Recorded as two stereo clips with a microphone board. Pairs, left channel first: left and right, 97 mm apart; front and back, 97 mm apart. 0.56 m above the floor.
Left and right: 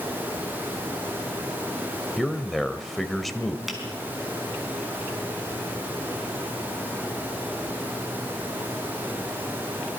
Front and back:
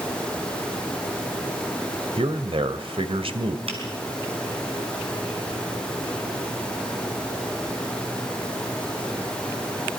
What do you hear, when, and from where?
2.2 s a man speaking: straight behind, 1.9 m
3.7 s a finger snap: straight behind, 5 m